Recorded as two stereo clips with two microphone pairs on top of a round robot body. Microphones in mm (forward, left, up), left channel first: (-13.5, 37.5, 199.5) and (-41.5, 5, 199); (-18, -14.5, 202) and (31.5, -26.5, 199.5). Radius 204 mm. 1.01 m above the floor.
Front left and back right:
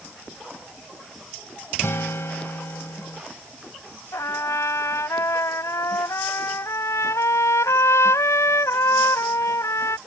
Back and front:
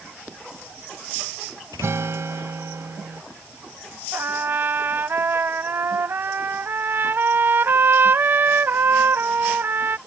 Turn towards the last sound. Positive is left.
turn(degrees=40)